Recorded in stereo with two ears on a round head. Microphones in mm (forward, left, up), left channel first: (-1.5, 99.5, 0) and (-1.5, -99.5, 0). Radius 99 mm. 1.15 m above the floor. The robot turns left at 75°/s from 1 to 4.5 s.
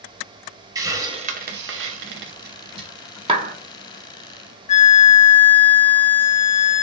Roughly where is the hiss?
Centre.